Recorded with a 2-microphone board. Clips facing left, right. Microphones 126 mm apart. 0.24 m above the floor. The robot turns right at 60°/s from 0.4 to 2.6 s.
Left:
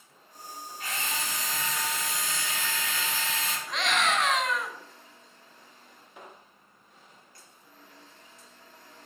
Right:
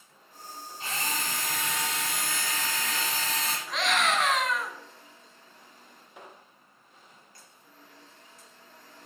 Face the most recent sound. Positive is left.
turn(degrees=0)  # may be behind; listen again after turning